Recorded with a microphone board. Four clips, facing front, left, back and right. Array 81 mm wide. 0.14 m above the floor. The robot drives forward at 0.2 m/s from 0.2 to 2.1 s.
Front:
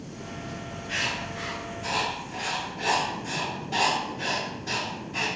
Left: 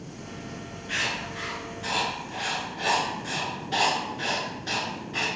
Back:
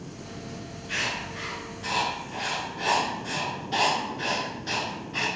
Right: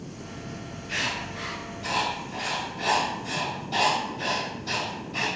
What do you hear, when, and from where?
0.9 s writing: 95° left, 1.1 m; by 5.3 s 110° left, 1.2 m